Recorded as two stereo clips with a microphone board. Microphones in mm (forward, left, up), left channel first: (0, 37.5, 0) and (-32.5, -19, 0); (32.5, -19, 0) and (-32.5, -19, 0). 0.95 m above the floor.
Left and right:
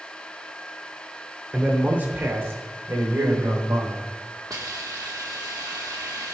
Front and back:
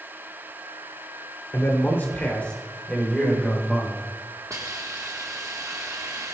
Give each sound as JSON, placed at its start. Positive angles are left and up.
{"t": 1.5, "sound": "a man speaking", "azimuth_deg": -50, "distance_m": 2.5}
{"t": 4.5, "sound": "a hiss", "azimuth_deg": -145, "distance_m": 1.3}